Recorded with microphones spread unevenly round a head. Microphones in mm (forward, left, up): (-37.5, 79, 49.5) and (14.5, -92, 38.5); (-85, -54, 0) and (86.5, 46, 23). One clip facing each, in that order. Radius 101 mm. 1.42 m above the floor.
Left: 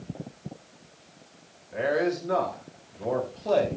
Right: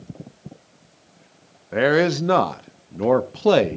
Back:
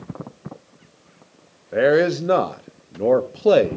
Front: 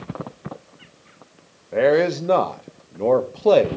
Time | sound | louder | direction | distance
1.7 | a man speaking | right 7 dB, back 1 dB | 70° right | 0.6 m